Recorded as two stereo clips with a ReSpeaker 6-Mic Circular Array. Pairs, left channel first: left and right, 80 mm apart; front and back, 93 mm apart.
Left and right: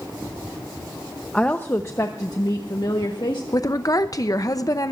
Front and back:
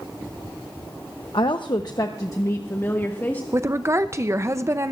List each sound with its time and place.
1.3 s a woman speaking: 15° left, 0.8 m; by 3.4 s 70° left, 1.6 m
3.5 s a woman speaking: 125° left, 0.6 m